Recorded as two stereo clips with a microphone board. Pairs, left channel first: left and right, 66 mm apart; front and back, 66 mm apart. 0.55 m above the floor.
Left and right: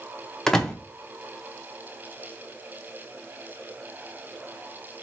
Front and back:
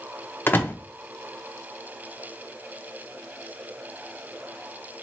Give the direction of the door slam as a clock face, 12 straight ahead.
11 o'clock.